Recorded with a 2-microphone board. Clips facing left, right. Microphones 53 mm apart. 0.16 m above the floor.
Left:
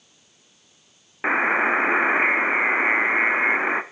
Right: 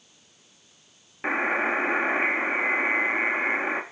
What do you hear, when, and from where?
1.2 s a buzzer: 30° left (ahead or behind), 0.6 m